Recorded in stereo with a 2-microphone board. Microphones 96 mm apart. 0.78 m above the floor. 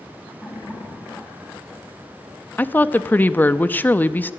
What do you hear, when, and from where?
0.4 s laughter: 5° left (ahead or behind), 6 m; by 2.4 s 20° right (ahead or behind), 6 m
2.6 s a woman speaking: 20° left (ahead or behind), 0.7 m